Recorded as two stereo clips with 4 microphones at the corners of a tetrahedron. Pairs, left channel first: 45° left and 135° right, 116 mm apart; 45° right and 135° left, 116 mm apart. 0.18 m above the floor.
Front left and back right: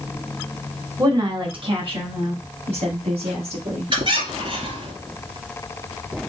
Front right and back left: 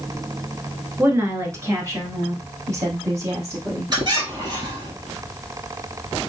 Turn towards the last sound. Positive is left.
turn(degrees=-170)